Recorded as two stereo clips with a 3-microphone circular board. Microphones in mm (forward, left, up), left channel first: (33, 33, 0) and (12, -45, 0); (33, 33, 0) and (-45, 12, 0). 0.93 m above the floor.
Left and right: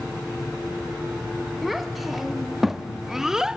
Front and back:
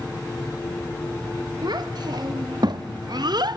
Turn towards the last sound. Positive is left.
turn(degrees=175)